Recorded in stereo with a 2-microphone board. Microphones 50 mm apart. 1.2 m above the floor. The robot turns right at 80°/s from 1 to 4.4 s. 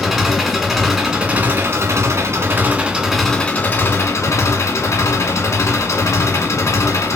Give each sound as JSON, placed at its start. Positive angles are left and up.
{"t": 0.0, "sound": "an engine running", "azimuth_deg": -170, "distance_m": 1.3}